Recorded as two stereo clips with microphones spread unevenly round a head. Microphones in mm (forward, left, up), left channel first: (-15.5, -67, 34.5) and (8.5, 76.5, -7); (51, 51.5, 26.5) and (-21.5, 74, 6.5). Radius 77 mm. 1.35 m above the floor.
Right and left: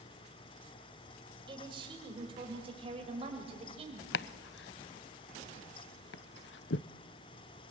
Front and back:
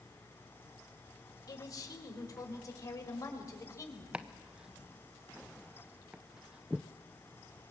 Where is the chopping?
115° right, 0.6 m.